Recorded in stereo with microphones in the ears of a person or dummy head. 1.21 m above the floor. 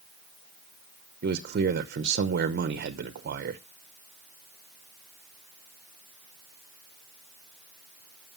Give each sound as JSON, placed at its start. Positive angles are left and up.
{"t": 1.2, "sound": "a man speaking", "side_deg": -50, "distance_m": 0.7}